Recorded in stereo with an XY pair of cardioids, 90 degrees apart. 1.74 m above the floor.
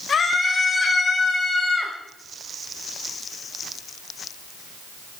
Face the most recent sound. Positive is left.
turn(degrees=25)